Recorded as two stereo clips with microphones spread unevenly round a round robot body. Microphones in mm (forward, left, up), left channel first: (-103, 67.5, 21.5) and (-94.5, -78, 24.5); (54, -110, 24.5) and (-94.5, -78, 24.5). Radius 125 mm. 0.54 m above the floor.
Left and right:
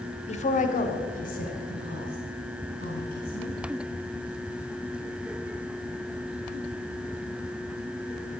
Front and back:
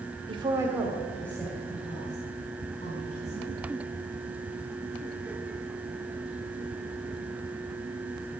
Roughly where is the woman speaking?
Behind left.